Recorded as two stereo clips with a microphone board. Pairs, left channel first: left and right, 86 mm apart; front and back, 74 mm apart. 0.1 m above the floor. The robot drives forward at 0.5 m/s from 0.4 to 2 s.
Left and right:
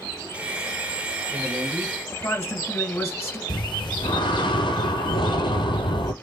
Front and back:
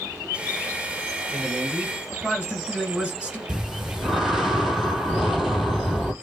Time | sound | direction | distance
1.3 | a man speaking | 90° left | 1.5 m
3.5 | breathing | 95° left | 0.7 m